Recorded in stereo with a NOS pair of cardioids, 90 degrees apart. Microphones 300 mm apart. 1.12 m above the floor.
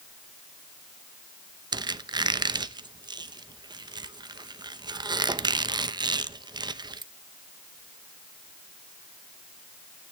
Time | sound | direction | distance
1.7 | a squeak | 15° right | 0.7 m